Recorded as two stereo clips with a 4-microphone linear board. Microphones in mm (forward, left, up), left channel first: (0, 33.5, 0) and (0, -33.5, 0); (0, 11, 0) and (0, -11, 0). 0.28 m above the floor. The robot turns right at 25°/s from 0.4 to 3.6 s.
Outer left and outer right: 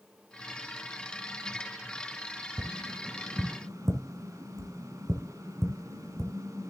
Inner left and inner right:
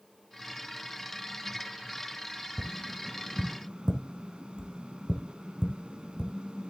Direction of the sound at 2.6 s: 70° right (ahead or behind).